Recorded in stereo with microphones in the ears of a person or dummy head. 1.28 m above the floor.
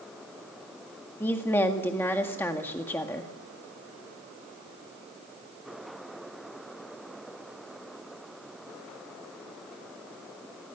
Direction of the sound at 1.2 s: 10° left (ahead or behind).